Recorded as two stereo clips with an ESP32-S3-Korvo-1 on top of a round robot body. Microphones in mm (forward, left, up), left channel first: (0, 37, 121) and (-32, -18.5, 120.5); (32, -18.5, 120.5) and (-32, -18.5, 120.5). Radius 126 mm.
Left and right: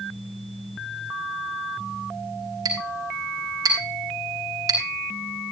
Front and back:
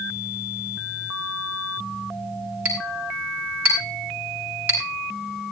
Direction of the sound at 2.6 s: 115° right.